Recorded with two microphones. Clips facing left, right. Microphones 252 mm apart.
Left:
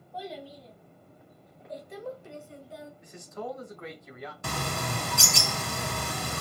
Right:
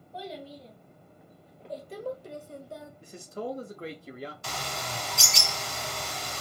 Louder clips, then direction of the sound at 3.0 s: Right 3 dB; 30° right (ahead or behind).